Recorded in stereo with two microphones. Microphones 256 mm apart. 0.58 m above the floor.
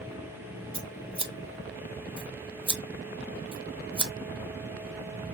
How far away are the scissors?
About 0.6 m.